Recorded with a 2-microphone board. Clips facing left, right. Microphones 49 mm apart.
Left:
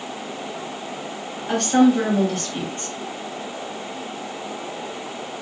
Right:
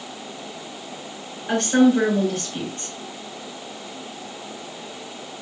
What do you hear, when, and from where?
1.5 s a woman speaking: 20° right (ahead or behind), 2 m